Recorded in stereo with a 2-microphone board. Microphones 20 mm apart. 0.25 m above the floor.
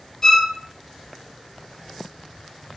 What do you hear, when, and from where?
0.2 s a violin: 25° left (ahead or behind), 0.7 m